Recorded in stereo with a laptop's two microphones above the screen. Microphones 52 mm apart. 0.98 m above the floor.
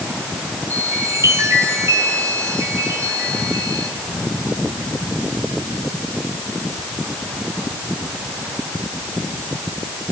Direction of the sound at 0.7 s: 70° right (ahead or behind).